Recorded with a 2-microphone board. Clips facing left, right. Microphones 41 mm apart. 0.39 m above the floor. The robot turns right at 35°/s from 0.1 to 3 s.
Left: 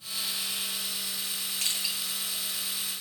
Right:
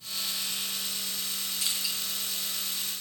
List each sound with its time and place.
1.6 s crushing: 55° left (ahead or behind), 2.5 m; by 1.9 s 45° left (ahead or behind), 2.5 m